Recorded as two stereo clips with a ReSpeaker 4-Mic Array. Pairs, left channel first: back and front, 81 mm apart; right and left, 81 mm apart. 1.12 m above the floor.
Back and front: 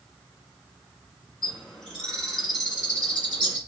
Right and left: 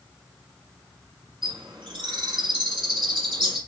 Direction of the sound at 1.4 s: 100° left.